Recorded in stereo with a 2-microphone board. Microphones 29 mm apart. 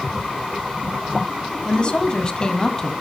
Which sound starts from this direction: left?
A woman speaking, at 1.6 s.